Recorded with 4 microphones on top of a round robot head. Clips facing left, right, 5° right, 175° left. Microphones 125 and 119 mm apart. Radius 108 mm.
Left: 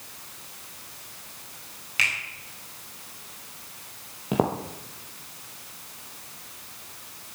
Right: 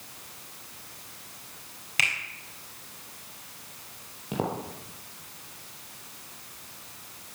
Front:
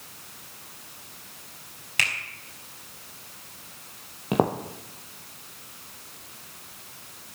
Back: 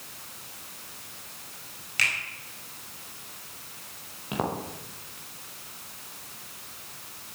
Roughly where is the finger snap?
Ahead right.